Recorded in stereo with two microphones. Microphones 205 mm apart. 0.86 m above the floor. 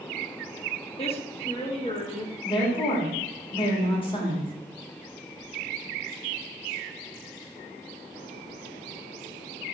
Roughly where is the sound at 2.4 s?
Left.